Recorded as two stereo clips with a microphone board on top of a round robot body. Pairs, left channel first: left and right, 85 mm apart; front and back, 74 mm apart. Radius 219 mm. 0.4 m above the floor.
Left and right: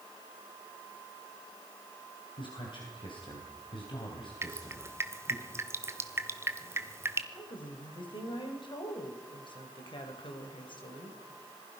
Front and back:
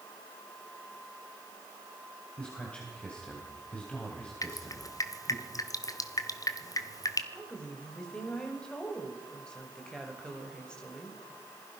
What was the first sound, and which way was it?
A man speaking, 75° left.